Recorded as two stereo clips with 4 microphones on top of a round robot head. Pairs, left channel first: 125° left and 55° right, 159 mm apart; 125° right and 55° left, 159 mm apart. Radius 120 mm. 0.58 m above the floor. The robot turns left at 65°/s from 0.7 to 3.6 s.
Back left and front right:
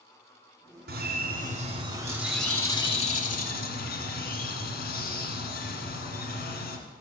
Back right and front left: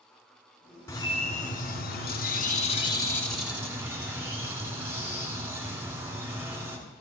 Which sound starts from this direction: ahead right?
A bird, at 0.9 s.